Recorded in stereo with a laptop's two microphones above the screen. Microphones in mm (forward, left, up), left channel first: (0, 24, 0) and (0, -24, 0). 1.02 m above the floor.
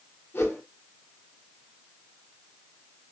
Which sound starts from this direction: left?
A whoosh, at 0.3 s.